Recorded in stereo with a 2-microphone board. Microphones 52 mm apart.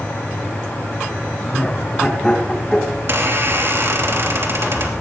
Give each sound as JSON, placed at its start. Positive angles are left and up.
{"t": 1.4, "sound": "laughter", "side_deg": 10, "distance_m": 3.5}
{"t": 2.9, "sound": "a squeak", "side_deg": -50, "distance_m": 2.5}